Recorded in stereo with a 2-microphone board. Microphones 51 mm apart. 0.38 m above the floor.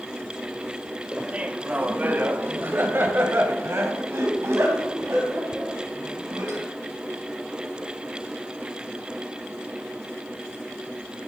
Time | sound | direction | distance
1.1 | laughter | 20° right (ahead or behind) | 1.3 m